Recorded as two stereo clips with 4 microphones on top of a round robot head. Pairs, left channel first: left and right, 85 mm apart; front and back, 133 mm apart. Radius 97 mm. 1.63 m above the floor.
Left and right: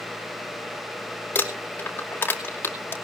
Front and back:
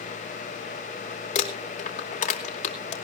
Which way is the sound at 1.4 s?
20° left.